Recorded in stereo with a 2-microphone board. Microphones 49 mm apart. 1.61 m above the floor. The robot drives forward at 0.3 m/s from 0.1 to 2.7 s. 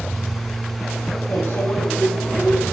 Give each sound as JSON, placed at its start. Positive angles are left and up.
{"t": 1.3, "sound": "a microwave", "side_deg": 60, "distance_m": 5.5}